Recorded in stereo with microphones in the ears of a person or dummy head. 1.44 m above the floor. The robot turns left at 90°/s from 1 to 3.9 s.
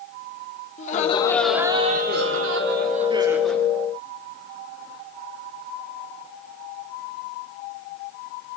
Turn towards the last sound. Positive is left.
turn(degrees=140)